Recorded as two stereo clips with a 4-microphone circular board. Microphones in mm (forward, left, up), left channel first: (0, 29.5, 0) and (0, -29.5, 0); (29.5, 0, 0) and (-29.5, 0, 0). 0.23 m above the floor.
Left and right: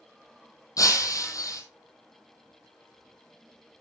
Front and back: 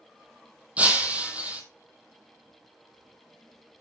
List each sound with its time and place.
0.8 s breaking glass: 115° left, 2 m